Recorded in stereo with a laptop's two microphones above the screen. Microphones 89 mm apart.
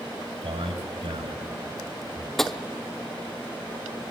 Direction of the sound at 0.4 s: 75° right (ahead or behind).